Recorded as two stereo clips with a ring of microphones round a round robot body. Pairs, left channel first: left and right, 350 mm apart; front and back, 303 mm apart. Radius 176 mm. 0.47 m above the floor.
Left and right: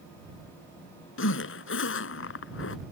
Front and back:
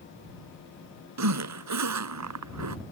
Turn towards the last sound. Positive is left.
turn(degrees=145)